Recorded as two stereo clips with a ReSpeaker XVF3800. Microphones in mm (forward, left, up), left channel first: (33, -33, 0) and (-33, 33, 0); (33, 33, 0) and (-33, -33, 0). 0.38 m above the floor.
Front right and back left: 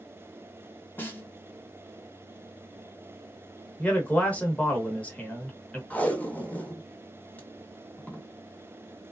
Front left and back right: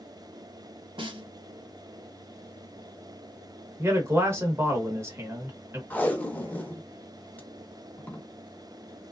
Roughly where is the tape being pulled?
Ahead.